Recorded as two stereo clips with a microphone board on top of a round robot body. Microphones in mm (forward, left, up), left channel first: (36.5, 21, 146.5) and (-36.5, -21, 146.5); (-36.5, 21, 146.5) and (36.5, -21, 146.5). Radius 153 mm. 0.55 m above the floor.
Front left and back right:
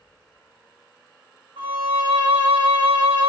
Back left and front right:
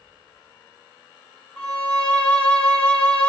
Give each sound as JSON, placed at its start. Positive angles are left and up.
{"t": 1.6, "sound": "a violin", "azimuth_deg": -130, "distance_m": 0.9}